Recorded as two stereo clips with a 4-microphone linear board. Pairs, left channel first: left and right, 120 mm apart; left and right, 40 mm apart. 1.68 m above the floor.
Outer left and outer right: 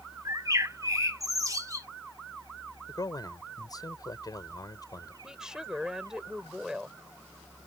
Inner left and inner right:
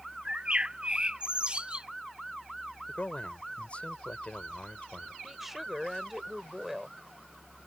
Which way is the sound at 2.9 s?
30° left (ahead or behind).